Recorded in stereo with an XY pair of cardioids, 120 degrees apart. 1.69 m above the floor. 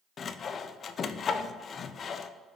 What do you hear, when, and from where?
0.2 s sawing: 40° left, 0.6 m